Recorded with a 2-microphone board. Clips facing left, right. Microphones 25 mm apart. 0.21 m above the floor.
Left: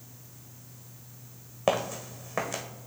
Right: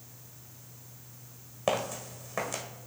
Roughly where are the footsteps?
Centre.